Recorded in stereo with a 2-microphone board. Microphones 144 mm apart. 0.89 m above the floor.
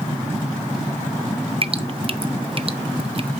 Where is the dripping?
40° right (ahead or behind), 0.7 m.